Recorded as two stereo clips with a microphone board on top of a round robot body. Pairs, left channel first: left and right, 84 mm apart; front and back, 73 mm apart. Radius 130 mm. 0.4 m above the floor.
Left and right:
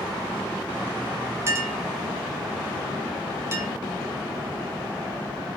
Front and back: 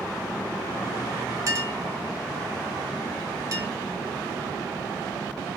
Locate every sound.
1.5 s a clink: 145° right, 1.6 m